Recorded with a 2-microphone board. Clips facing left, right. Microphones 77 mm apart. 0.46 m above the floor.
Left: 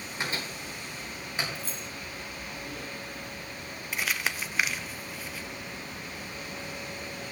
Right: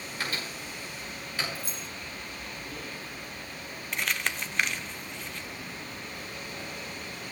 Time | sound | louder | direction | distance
0.2 | a microwave | left 1 dB | 25° left (ahead or behind) | 3.5 m
1.6 | keys jangling | even | 15° right (ahead or behind) | 1.7 m
3.9 | crumpling | even | 5° left (ahead or behind) | 0.7 m